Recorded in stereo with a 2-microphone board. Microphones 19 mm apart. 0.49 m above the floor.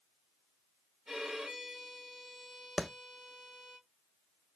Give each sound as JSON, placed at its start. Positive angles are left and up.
{"t": 1.1, "sound": "a violin", "side_deg": -50, "distance_m": 2.5}
{"t": 2.8, "sound": "a clap", "side_deg": 20, "distance_m": 0.5}